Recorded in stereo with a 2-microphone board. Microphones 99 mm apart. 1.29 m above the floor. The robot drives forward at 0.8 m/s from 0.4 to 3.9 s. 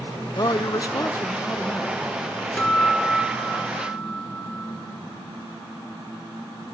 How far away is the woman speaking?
About 0.6 m.